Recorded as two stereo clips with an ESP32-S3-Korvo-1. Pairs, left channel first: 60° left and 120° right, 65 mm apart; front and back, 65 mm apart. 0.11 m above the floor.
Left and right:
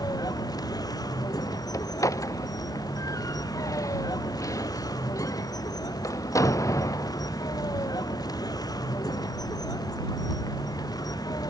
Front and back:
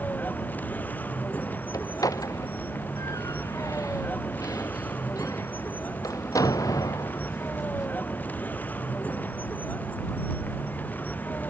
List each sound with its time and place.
0.0 s a vehicle: 65° left
1.7 s a door slam: 30° left